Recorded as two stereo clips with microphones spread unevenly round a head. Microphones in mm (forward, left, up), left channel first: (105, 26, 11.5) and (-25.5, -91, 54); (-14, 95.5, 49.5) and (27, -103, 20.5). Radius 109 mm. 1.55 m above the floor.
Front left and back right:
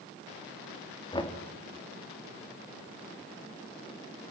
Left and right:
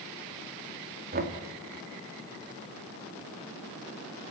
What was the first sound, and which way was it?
Knocking, 25° right.